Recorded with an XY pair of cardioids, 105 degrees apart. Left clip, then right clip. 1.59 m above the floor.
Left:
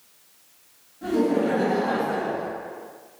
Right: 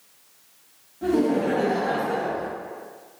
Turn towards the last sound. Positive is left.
turn(degrees=-70)